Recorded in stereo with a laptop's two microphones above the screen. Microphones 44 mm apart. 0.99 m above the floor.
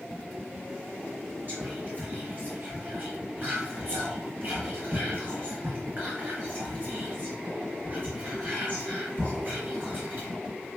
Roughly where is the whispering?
Right.